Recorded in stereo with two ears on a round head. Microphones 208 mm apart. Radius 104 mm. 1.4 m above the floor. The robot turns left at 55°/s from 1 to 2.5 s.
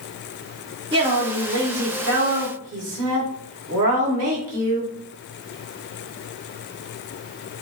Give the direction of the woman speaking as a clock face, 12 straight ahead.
1 o'clock.